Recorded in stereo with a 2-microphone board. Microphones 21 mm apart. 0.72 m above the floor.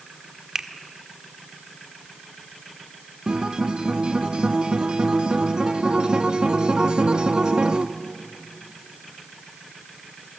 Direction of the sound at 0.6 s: 15° right (ahead or behind).